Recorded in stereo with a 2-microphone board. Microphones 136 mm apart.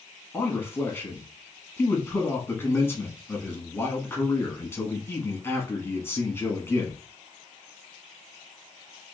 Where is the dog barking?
I don't hear a dog barking.